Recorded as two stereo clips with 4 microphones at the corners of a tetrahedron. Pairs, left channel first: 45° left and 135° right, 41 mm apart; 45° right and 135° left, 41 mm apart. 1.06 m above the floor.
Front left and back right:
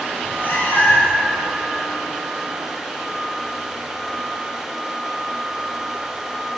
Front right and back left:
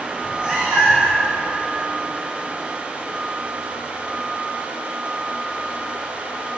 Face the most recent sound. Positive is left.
turn(degrees=80)